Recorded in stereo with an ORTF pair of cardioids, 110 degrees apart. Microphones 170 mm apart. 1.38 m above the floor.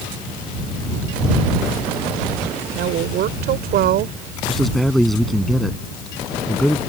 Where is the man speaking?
Straight ahead.